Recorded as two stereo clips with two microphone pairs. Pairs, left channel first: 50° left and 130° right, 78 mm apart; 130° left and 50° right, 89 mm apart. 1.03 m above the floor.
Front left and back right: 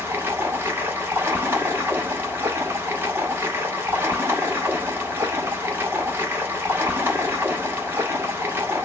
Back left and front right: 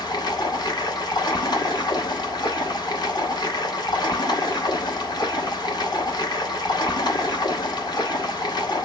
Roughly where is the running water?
Behind.